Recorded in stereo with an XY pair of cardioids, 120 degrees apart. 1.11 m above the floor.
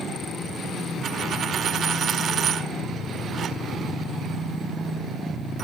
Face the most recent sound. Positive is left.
turn(degrees=-55)